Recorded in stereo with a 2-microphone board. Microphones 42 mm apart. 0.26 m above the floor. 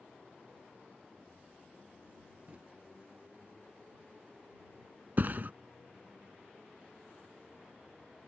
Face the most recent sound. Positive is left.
turn(degrees=-50)  # may be behind; listen again after turning